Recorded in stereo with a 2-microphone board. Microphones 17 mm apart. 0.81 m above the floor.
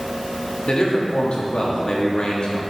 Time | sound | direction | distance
0.7 | a man speaking | 55° left (ahead or behind) | 1.4 m